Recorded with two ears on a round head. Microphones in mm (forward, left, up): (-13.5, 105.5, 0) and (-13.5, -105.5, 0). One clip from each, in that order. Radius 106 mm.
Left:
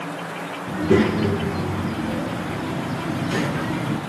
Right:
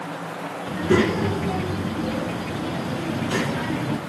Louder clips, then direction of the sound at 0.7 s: Left 1 dB; 35° right (ahead or behind).